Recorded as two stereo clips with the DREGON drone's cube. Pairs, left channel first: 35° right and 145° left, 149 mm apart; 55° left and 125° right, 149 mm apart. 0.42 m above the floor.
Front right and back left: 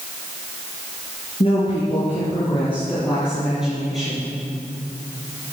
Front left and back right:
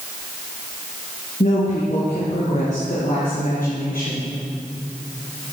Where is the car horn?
No car horn in this recording.